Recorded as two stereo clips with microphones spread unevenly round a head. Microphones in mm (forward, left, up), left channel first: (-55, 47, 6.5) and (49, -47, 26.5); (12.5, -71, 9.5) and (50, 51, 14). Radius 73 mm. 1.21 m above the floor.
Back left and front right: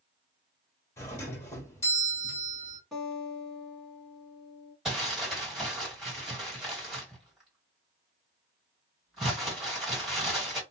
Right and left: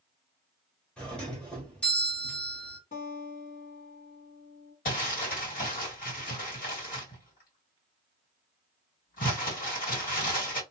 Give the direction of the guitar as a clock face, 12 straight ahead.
4 o'clock.